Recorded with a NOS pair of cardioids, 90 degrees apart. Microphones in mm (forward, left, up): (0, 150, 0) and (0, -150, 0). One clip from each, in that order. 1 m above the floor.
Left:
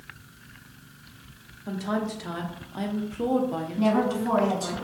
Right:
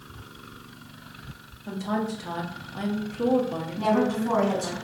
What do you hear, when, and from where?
1.7 s a woman speaking: 5° left, 0.6 m
3.8 s a woman speaking: 20° left, 1.2 m